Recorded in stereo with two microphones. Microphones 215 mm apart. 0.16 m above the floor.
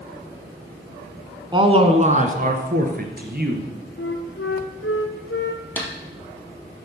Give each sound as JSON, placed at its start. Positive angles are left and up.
{"t": 1.5, "sound": "a man speaking", "side_deg": -20, "distance_m": 1.4}
{"t": 4.0, "sound": "a flute", "side_deg": 70, "distance_m": 1.7}
{"t": 5.8, "sound": "a snare drum", "side_deg": 10, "distance_m": 3.0}